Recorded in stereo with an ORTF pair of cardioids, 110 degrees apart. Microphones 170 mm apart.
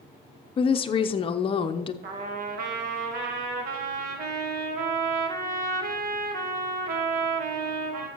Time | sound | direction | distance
0.6 | a woman speaking | 35° left | 0.7 m
2.0 | a trumpet | 65° right | 1.6 m